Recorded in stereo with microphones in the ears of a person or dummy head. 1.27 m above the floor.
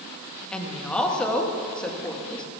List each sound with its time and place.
0.5 s a woman speaking: 5° left (ahead or behind), 1.6 m